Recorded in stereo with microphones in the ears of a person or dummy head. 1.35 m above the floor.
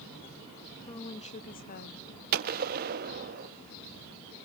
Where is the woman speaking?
20° left (ahead or behind), 1.7 m; by 2.1 s 55° left (ahead or behind), 2 m.